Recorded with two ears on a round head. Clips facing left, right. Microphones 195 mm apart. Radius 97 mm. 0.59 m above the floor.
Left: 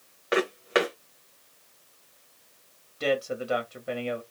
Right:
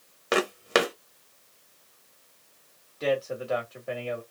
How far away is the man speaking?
About 1.1 m.